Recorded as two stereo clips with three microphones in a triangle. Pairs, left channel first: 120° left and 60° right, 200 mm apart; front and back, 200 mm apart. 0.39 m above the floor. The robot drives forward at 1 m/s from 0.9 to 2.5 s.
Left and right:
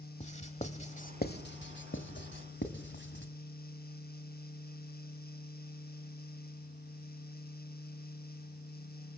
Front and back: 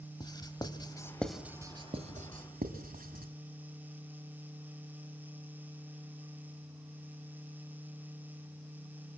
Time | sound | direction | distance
0.2 | writing | 65° left | 1.2 m